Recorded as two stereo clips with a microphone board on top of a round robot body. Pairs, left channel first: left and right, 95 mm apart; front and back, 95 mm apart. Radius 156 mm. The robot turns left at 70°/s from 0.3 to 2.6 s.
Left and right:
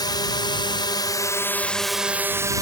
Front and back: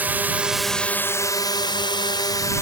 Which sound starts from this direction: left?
A drone, at 0.0 s.